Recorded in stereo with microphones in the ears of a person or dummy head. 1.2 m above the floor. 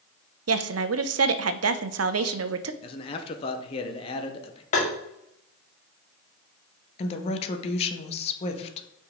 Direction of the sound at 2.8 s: 35° left (ahead or behind).